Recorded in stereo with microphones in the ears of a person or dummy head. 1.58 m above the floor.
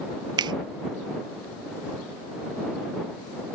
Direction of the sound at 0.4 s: 30° right (ahead or behind).